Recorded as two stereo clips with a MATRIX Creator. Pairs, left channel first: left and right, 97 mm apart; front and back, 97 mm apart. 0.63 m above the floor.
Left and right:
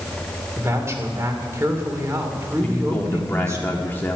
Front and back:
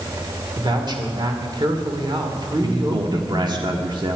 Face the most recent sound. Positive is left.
turn(degrees=155)